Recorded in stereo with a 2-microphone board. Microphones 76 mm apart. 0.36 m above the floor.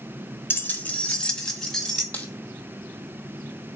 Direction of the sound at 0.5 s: 30° left (ahead or behind).